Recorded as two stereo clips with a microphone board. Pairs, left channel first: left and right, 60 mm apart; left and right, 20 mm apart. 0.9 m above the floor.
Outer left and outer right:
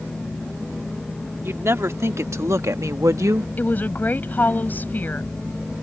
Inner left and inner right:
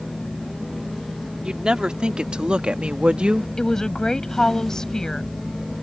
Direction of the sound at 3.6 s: 35° left (ahead or behind).